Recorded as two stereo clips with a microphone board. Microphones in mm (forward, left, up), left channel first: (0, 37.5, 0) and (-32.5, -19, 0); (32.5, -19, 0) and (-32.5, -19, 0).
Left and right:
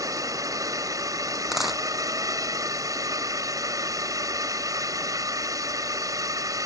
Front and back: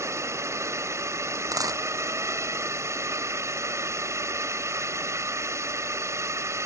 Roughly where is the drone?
Behind right.